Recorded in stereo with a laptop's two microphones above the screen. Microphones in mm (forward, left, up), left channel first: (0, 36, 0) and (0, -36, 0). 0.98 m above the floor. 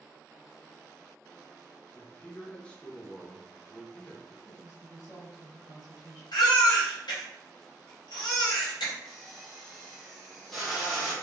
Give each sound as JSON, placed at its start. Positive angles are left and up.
{"t": 1.9, "sound": "a man speaking", "side_deg": 15, "distance_m": 0.5}
{"t": 4.5, "sound": "a woman speaking", "side_deg": 55, "distance_m": 1.2}
{"t": 6.3, "sound": "a baby crying", "side_deg": 85, "distance_m": 0.9}
{"t": 9.1, "sound": "a drill", "side_deg": 5, "distance_m": 0.6}